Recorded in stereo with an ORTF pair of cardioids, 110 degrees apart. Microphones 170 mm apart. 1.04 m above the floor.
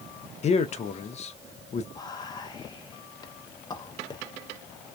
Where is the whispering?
25° left, 0.6 m.